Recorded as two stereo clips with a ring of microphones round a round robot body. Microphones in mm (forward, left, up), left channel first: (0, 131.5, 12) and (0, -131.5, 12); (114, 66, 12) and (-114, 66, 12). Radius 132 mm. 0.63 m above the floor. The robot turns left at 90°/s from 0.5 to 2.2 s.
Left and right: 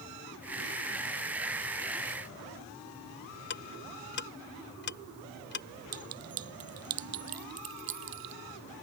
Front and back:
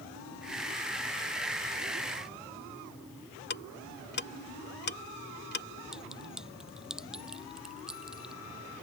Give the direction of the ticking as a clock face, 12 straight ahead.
11 o'clock.